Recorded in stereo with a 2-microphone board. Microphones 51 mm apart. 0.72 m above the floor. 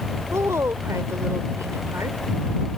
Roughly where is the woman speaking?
Right.